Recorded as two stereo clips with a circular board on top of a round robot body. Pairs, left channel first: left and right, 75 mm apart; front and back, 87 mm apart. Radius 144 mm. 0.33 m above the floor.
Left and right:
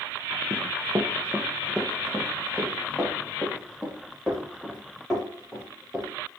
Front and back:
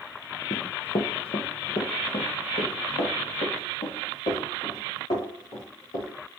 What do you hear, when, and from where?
0.5 s running footsteps: 40° right, 0.5 m; by 6.1 s 5° left, 5 m